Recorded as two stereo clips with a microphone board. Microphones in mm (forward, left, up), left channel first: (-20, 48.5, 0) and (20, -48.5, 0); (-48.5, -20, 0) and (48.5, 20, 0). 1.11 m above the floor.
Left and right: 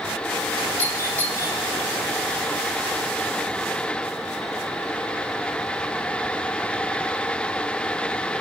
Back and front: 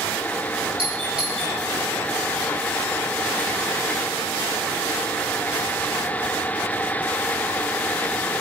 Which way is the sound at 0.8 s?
5° right.